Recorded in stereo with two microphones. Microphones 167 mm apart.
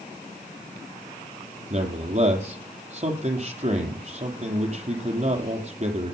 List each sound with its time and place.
1.7 s a man speaking: 45° right (ahead or behind), 4.5 m